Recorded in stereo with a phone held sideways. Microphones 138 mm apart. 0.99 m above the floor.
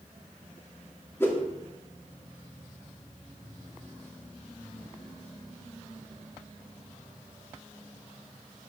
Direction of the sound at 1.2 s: 20° left (ahead or behind).